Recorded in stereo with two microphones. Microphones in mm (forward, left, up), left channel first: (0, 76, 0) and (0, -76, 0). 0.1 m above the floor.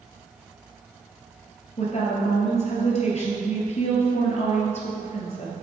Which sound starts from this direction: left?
A woman speaking, at 1.8 s.